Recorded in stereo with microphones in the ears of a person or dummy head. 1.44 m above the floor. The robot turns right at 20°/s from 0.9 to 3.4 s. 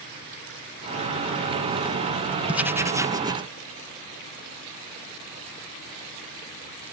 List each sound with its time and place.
2.5 s writing: 5° right (ahead or behind); by 3.5 s 25° right (ahead or behind)